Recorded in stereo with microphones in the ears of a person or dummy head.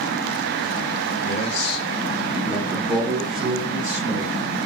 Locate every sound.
1.2 s a man speaking: 45° left (ahead or behind), 0.8 m; by 4.3 s 45° right (ahead or behind), 1.5 m